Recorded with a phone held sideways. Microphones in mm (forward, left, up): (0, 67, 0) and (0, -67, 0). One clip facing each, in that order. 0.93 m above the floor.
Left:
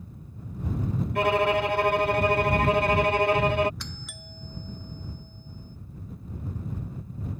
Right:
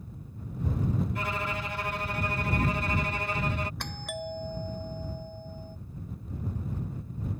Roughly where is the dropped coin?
I don't hear a dropped coin.